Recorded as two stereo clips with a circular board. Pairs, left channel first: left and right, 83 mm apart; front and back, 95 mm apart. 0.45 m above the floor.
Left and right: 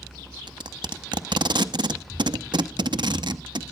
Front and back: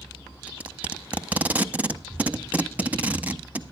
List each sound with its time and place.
0.5 s tape being pulled: 105° right, 0.6 m